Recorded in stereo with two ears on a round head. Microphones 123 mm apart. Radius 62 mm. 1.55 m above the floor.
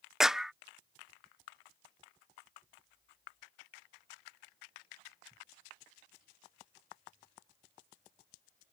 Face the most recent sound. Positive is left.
turn(degrees=-5)  # may be behind; listen again after turning